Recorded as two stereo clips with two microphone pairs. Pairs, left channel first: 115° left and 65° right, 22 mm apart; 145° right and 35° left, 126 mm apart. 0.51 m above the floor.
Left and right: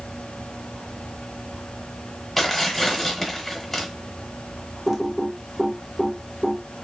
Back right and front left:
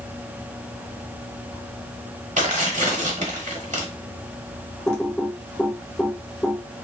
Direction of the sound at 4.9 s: 70° right.